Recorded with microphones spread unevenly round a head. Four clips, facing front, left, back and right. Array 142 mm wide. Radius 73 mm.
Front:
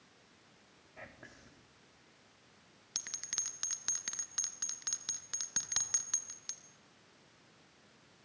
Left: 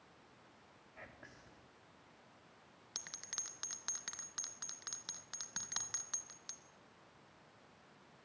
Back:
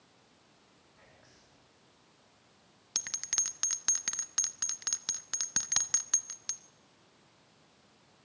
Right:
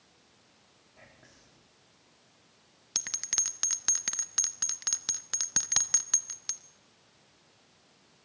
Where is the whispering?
Straight ahead, 2.5 m.